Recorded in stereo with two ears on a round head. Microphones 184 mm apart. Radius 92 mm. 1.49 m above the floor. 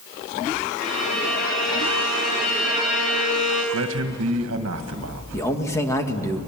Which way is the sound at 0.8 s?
85° left.